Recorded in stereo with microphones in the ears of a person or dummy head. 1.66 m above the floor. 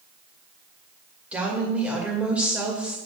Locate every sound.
1.3 s a woman speaking: 10° right (ahead or behind), 2.5 m